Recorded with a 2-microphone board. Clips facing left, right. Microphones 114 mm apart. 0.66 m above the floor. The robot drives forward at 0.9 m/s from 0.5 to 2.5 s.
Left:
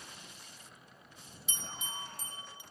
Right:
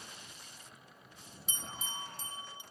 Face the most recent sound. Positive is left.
turn(degrees=-25)  # may be behind; listen again after turning